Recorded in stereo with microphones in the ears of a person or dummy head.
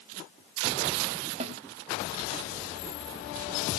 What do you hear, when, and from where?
1.4 s a snare drum: 35° right (ahead or behind), 1.4 m